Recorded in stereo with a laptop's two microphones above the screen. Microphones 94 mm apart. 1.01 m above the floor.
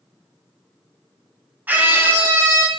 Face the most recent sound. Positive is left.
turn(degrees=-25)  # may be behind; listen again after turning